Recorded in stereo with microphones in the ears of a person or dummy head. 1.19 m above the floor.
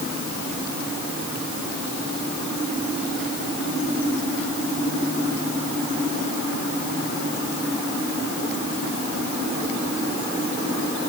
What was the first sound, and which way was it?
Only background noise.